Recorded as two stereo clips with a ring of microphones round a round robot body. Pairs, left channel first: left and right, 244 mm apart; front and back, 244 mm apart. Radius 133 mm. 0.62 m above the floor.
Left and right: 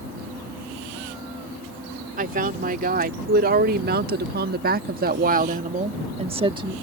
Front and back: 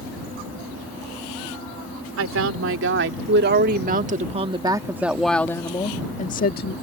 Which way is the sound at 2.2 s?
150° right.